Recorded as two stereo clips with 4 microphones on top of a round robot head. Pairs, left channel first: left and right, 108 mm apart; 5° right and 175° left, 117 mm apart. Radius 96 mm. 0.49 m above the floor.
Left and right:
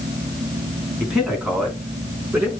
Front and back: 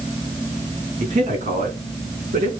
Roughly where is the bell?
I don't hear a bell.